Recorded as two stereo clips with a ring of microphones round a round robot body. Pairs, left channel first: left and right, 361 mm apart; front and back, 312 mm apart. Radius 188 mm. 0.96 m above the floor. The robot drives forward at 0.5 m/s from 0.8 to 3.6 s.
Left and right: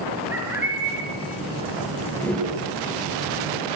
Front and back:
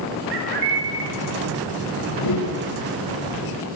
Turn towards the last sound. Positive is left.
turn(degrees=5)